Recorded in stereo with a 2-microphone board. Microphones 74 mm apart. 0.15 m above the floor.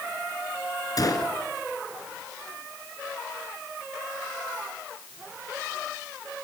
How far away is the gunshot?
About 2 m.